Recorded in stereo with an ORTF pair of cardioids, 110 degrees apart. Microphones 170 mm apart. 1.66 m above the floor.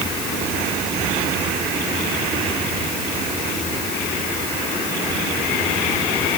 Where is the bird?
I don't hear a bird.